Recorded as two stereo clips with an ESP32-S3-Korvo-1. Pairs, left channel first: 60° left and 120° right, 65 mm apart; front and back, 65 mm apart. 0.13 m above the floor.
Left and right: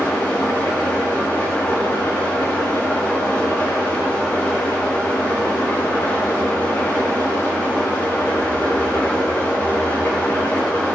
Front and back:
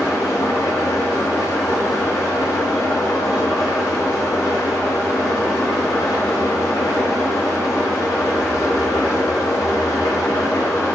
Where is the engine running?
Straight ahead, 6.5 m.